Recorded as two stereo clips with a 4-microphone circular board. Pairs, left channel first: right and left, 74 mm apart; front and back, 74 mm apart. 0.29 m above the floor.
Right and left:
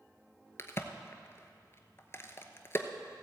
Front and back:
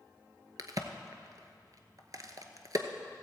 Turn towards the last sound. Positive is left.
turn(degrees=-145)